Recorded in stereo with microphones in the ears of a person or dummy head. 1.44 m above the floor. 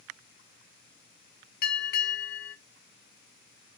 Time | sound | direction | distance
1.6 | a bell | 60° left (ahead or behind) | 0.8 m